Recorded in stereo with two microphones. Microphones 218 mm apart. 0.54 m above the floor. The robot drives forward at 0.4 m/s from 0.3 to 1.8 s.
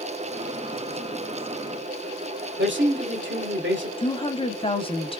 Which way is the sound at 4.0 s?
25° left (ahead or behind).